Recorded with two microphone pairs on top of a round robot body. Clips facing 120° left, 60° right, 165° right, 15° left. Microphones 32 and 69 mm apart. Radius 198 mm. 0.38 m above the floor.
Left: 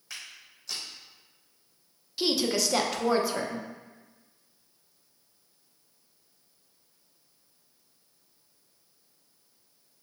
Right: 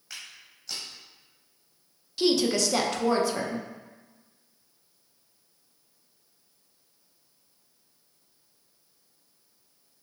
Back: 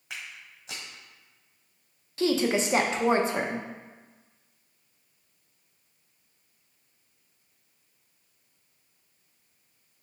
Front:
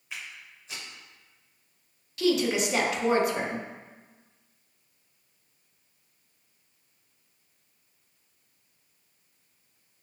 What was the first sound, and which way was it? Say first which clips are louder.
Footsteps: even, even; 150° right.